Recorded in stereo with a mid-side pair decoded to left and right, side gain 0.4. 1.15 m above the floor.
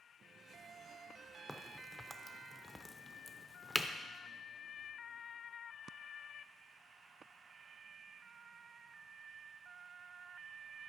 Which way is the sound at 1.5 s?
5° left.